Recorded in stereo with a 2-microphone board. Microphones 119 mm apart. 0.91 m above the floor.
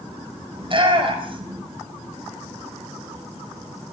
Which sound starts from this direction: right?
A shout, at 0.6 s.